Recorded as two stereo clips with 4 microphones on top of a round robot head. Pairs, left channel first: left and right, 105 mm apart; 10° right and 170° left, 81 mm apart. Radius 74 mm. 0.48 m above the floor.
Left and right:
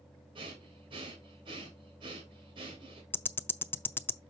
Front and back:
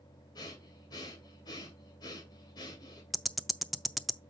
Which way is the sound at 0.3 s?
50° right.